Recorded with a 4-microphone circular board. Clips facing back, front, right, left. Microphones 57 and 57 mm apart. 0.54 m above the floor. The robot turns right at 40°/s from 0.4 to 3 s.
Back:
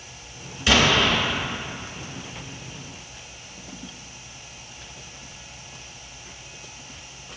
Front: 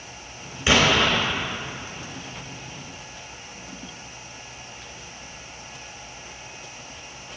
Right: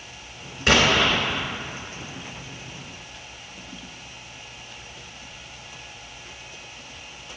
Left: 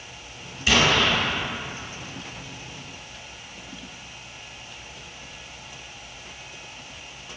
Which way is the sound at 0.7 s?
65° right.